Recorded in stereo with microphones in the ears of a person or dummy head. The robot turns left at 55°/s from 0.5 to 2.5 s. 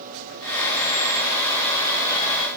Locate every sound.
Only background noise.